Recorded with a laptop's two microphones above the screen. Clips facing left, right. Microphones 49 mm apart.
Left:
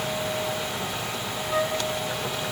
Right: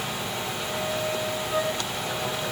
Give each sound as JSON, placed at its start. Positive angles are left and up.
{"t": 1.5, "sound": "a flute", "side_deg": 20, "distance_m": 3.0}